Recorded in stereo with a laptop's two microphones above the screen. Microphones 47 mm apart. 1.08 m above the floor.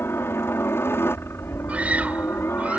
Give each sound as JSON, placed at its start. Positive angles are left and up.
{"t": 0.0, "sound": "a helicopter", "side_deg": 60}
{"t": 1.7, "sound": "a scream", "side_deg": -30}